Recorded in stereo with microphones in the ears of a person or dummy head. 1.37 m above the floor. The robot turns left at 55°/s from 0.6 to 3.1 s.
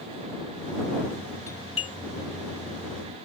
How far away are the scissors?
No scissors in this recording.